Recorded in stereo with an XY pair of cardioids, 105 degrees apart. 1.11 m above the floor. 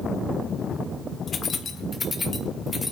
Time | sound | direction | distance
1.3 | keys jangling | 50° left | 1.8 m